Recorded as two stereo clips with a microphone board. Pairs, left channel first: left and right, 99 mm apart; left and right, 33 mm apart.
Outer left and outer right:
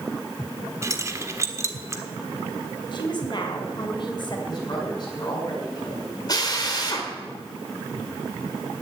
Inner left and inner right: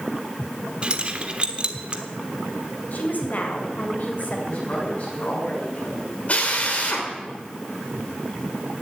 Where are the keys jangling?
30° right (ahead or behind), 1.3 m.